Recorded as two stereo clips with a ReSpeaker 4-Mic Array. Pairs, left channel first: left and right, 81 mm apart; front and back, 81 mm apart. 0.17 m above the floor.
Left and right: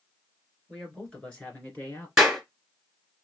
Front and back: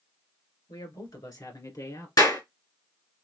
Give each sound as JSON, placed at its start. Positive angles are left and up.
{"t": 0.7, "sound": "a man speaking", "azimuth_deg": 5, "distance_m": 2.0}
{"t": 2.2, "sound": "a clap", "azimuth_deg": -5, "distance_m": 2.0}